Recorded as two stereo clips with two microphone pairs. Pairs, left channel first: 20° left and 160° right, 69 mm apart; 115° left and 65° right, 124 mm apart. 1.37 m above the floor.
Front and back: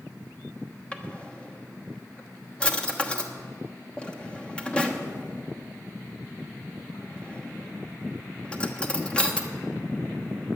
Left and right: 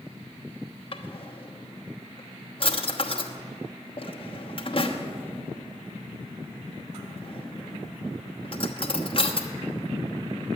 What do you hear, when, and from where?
0.9 s a drawer: 90° left, 1.1 m